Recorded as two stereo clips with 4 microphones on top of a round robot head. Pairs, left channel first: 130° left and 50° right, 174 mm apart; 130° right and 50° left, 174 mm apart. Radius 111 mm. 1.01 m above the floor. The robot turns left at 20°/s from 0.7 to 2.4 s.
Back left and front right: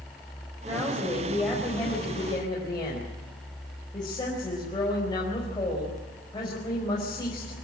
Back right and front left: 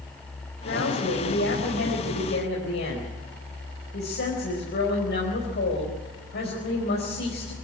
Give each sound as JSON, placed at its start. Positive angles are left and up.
{"t": 0.7, "sound": "a woman speaking", "azimuth_deg": -125, "distance_m": 4.5}